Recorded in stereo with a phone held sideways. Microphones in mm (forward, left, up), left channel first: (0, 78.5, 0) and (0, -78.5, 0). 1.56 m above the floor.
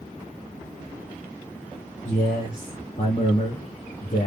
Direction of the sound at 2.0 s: 55° left (ahead or behind).